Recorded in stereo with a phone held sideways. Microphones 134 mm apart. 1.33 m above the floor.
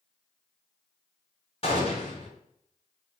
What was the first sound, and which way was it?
A gunshot, 45° left (ahead or behind).